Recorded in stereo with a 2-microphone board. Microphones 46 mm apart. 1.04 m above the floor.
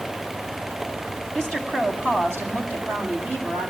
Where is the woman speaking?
65° right (ahead or behind), 7 m; by 3.7 s 60° right (ahead or behind), 8 m.